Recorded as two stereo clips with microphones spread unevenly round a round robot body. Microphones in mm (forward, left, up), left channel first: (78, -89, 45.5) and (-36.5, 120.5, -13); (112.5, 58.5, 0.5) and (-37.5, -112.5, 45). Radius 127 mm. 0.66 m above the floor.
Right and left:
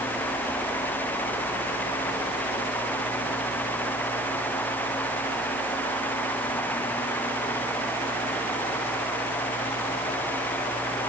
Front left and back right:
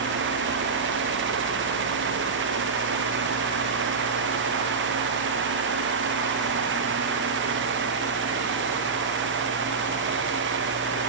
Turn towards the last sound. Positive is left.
No sound to turn to.